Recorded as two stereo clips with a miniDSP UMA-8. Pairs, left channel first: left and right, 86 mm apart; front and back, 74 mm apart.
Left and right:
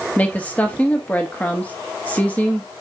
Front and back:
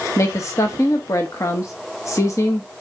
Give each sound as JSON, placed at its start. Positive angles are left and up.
{"t": 0.2, "sound": "a woman speaking", "azimuth_deg": 25, "distance_m": 0.8}